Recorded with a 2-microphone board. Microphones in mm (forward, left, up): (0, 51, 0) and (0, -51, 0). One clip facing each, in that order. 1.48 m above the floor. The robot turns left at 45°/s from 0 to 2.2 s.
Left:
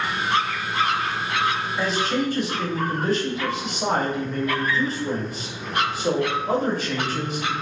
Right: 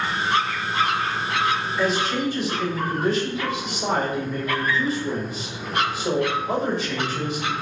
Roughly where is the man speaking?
Left.